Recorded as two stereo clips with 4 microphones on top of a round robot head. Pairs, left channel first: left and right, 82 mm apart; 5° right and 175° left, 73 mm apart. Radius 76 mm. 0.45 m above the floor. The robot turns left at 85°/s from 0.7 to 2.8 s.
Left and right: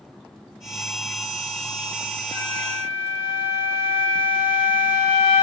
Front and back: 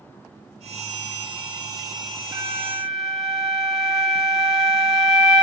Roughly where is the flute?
Behind left.